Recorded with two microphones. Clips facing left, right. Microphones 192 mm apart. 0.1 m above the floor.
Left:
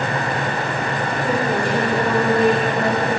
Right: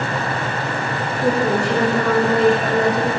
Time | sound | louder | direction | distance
1.2 | a woman speaking | right 4 dB | 75° right (ahead or behind) | 6.5 m